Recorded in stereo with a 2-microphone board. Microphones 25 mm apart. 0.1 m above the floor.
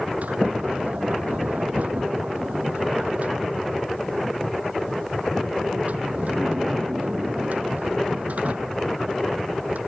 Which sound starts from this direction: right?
A sliding door, at 0.2 s.